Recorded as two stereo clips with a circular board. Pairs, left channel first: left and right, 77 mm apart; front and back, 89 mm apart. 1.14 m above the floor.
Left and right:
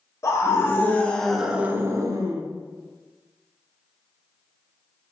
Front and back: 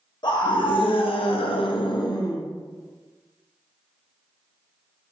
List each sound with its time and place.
0.2 s a scream: 35° left, 1.1 m; by 2.4 s 55° right, 0.8 m